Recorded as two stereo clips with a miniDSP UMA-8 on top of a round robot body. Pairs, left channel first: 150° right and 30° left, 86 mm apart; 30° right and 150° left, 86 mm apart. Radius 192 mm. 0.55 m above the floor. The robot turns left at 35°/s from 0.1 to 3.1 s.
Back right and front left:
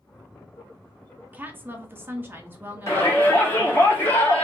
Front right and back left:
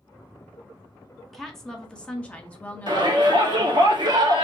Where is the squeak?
I don't hear a squeak.